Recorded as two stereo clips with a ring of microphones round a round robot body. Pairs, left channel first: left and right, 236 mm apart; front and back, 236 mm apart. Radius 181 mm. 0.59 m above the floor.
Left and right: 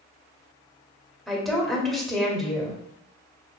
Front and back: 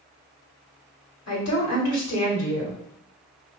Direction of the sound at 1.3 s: Straight ahead.